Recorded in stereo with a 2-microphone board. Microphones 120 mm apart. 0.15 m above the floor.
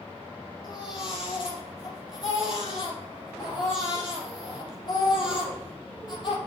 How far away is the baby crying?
About 3 m.